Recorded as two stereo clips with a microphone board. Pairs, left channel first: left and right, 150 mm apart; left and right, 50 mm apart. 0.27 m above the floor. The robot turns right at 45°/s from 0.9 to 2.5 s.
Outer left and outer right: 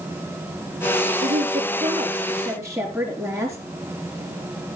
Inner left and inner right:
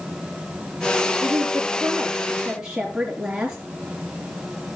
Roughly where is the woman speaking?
Right.